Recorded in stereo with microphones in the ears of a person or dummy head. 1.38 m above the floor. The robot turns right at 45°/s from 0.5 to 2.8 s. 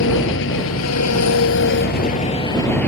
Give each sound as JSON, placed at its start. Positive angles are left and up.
{"t": 0.0, "sound": "an engine running", "azimuth_deg": 65}